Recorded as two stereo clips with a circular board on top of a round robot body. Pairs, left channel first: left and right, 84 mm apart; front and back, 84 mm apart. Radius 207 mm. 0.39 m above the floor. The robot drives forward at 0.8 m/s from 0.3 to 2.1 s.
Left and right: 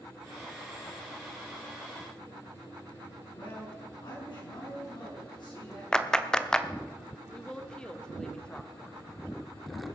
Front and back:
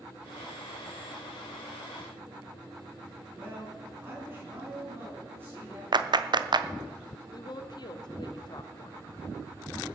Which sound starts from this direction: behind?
A clap, at 5.9 s.